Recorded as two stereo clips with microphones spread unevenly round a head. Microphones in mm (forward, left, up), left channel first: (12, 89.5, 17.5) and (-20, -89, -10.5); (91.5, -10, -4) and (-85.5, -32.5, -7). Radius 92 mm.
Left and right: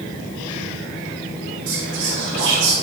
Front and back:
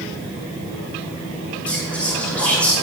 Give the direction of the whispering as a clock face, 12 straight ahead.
3 o'clock.